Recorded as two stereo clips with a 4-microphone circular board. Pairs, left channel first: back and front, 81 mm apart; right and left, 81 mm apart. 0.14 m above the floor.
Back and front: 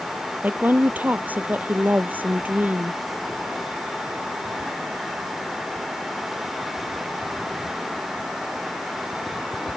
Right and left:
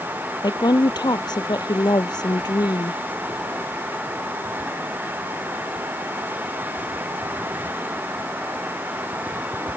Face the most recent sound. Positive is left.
turn(degrees=-65)